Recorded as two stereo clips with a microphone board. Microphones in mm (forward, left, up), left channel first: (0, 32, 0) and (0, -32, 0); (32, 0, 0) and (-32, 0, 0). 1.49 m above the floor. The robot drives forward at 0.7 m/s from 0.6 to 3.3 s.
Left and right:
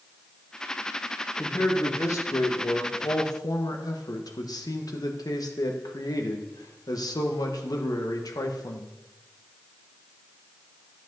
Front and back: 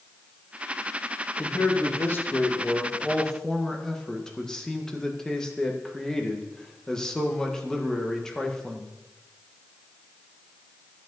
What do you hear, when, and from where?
1.4 s a man speaking: 45° left, 2.5 m; by 8.9 s 80° left, 1.6 m